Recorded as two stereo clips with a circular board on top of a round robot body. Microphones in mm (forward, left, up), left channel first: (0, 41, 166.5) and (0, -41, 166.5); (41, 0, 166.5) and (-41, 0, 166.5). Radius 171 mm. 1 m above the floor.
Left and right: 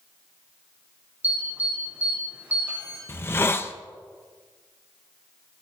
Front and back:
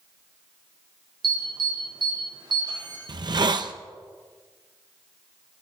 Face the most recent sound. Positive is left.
turn(degrees=150)